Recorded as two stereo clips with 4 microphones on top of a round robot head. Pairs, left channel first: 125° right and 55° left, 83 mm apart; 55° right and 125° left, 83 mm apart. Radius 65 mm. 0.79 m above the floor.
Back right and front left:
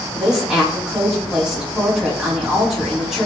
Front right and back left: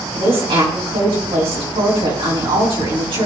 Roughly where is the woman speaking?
Behind left.